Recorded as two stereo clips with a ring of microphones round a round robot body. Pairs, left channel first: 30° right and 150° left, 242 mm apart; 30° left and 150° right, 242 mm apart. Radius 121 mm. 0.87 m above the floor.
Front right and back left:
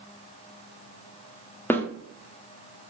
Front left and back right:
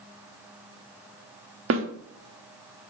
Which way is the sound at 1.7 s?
110° right.